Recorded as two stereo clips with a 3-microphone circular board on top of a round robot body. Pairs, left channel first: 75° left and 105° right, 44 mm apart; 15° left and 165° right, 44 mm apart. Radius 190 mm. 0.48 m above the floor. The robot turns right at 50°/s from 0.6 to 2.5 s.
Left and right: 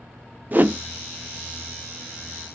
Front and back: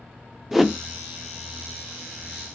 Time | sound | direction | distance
0.5 | a whoosh | 80° right | 0.6 m